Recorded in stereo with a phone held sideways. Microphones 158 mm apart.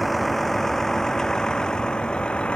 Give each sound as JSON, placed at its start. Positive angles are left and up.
{"t": 0.0, "sound": "a vehicle", "side_deg": 0}